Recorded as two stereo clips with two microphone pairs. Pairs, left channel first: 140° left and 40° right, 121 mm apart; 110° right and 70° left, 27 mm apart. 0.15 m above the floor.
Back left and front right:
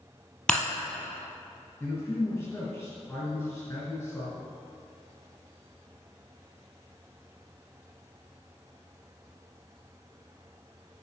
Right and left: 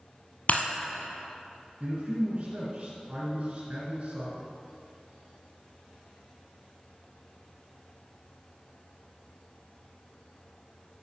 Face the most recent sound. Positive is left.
turn(degrees=80)